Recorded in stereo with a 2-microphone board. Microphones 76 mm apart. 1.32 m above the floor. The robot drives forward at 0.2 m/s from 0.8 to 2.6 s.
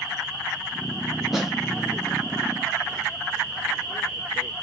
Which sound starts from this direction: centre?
A snare drum, at 1.3 s.